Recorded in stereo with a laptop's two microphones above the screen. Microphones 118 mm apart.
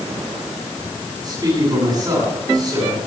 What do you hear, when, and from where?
1.2 s a man speaking: 35° right (ahead or behind), 9.5 m